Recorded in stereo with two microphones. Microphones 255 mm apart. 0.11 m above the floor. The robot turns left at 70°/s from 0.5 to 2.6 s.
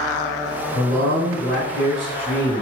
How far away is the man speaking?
About 1.9 m.